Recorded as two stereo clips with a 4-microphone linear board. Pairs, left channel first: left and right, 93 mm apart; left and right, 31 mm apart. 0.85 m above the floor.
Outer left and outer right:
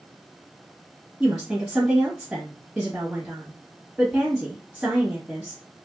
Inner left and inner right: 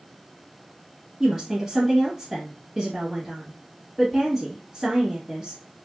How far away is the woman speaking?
About 1.4 m.